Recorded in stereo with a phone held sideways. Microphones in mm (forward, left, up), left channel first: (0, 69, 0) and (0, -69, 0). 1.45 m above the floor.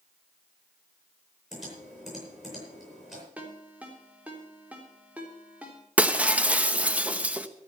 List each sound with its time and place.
1.5 s typing on a keyboard: 5° right (ahead or behind), 9 m
3.4 s a ringtone: 10° right (ahead or behind), 3.5 m
6.0 s breaking glass: 10° right (ahead or behind), 0.9 m